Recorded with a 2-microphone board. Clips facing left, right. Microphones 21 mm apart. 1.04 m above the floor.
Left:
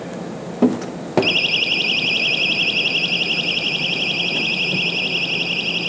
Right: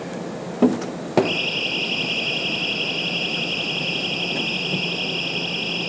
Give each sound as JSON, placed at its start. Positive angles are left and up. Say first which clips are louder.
{"t": 1.2, "sound": "a siren", "louder": "left 5 dB", "side_deg": 75, "distance_m": 5.5}